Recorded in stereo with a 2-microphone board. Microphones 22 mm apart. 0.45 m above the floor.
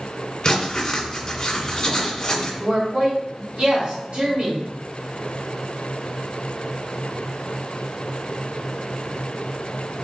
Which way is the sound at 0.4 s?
35° left (ahead or behind).